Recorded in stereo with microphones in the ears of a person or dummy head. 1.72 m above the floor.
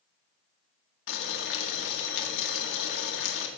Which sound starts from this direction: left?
Boiling, at 1.1 s.